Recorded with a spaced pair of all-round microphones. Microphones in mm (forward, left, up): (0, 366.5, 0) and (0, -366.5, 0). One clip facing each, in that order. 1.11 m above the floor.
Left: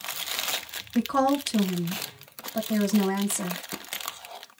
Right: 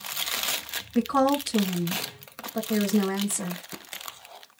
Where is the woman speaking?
5° left (ahead or behind), 0.6 m.